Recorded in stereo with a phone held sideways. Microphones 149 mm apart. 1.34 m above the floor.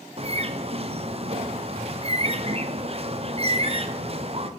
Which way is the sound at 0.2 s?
45° right (ahead or behind).